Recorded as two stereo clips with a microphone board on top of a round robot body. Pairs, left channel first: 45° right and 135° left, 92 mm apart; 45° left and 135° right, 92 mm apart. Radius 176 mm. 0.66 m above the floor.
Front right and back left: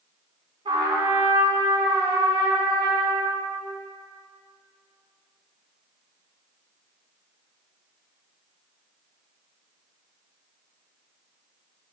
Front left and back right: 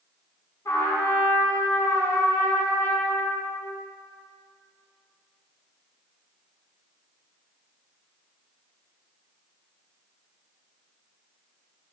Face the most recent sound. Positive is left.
turn(degrees=105)